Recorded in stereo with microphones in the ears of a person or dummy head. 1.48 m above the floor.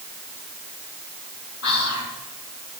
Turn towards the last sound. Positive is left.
turn(degrees=75)  # may be behind; listen again after turning